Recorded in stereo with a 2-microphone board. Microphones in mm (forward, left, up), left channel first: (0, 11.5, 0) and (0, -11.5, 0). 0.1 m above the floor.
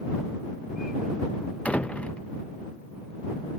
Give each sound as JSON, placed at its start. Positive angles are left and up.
{"t": 1.6, "sound": "a door slam", "side_deg": 65}